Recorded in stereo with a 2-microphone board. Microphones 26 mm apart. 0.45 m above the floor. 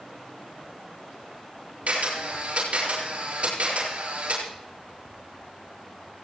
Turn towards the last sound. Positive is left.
turn(degrees=-70)  # may be behind; listen again after turning